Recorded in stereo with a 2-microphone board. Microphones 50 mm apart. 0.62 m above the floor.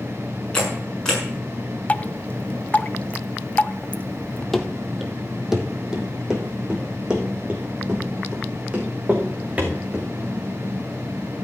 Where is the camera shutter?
15° left (ahead or behind), 6 m.